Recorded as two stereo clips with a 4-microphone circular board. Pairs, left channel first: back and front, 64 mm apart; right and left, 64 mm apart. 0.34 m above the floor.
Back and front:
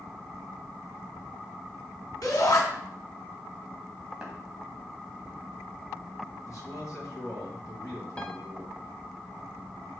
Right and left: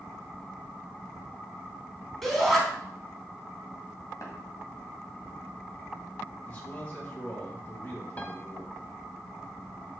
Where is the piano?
125° right, 0.8 m.